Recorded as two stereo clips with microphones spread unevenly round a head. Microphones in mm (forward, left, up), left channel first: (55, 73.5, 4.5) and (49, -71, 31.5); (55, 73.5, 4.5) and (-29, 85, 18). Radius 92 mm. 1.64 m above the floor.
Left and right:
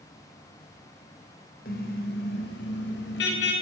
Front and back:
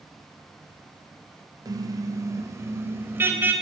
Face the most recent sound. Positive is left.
turn(degrees=105)